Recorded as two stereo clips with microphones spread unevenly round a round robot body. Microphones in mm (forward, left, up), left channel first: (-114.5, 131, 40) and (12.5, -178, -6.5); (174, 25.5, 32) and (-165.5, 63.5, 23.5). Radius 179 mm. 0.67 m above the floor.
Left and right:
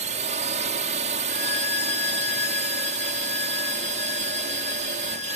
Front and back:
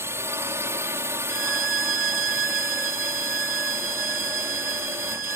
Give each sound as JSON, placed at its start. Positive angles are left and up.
{"t": 0.0, "sound": "a drone", "azimuth_deg": -110}
{"t": 1.3, "sound": "a violin", "azimuth_deg": 145}